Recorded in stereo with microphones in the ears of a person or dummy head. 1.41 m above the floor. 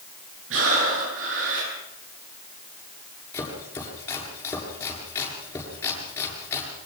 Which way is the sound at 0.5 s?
70° right (ahead or behind).